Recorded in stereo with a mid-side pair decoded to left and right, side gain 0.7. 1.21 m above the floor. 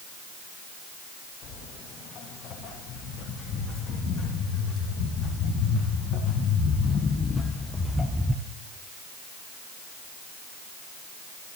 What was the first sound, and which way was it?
Footsteps, 60° left.